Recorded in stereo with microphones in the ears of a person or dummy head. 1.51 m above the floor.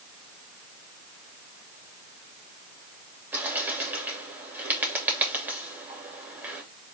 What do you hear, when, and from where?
3.3 s a bird: 10° right (ahead or behind), 2.5 m